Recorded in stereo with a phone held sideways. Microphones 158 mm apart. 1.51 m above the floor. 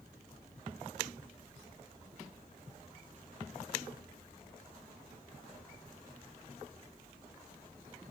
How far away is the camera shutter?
I don't hear a camera shutter.